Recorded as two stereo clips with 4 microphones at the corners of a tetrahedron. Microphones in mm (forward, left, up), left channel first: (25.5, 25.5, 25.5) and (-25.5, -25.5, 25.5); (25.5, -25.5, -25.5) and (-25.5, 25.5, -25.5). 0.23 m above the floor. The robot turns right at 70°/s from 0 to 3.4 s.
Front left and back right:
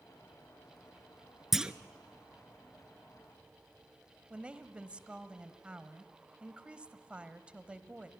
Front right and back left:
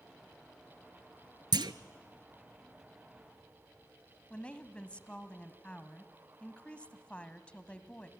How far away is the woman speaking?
About 1.2 m.